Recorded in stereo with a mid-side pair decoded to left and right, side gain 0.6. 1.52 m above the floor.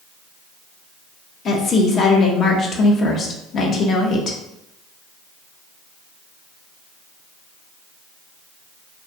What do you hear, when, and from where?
1.4 s a woman speaking: 45° left, 0.6 m